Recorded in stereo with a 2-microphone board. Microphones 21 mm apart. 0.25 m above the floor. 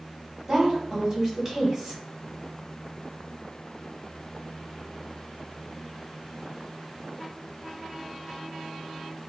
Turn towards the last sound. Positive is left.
turn(degrees=-30)  # may be behind; listen again after turning